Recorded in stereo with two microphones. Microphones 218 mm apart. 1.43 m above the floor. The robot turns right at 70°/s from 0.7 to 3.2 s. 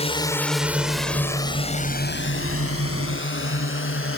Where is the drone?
30° left (ahead or behind); by 4.2 s 70° left (ahead or behind).